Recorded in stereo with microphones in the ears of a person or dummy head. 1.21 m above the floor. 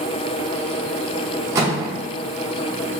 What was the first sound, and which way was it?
A microwave, 15° right (ahead or behind).